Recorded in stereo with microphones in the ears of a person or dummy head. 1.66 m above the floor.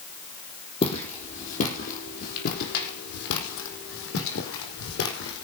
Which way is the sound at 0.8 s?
40° left (ahead or behind).